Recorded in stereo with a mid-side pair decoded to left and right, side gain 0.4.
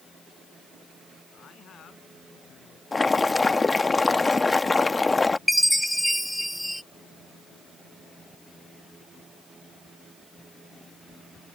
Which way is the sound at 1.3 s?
65° left.